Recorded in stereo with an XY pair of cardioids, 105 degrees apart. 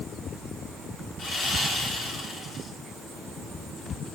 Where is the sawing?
55° left, 3 m.